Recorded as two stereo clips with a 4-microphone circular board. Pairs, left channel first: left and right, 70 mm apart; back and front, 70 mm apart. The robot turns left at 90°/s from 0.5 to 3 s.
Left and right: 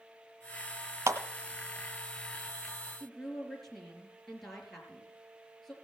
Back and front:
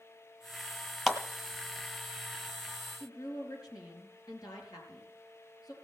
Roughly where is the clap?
Right.